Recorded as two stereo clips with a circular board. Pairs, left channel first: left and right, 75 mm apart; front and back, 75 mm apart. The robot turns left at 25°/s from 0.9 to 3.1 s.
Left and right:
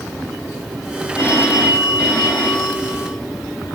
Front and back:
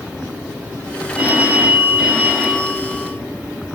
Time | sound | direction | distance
1.1 | a phone ringing | 125° left | 1.4 m